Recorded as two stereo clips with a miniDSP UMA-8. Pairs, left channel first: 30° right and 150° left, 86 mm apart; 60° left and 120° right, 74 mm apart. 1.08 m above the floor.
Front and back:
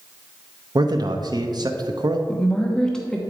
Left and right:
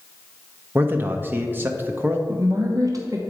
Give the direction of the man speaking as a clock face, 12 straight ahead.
6 o'clock.